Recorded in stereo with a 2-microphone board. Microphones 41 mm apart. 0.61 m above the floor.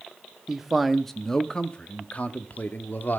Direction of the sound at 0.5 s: 10° right (ahead or behind).